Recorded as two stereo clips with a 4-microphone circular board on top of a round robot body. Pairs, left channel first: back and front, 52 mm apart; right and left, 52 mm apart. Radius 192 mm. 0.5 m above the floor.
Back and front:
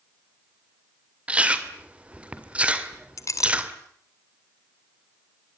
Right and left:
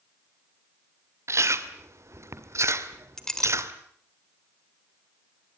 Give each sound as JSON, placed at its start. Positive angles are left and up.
{"t": 1.3, "sound": "chewing", "azimuth_deg": 65, "distance_m": 2.5}
{"t": 3.2, "sound": "a clink", "azimuth_deg": -170, "distance_m": 2.0}